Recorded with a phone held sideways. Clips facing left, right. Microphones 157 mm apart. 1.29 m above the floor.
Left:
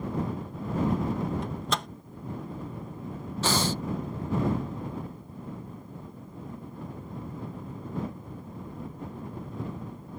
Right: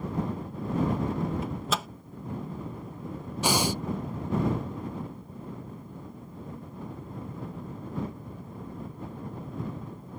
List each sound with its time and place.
1.4 s a microwave: 5° right (ahead or behind)
3.4 s breathing: 15° right (ahead or behind)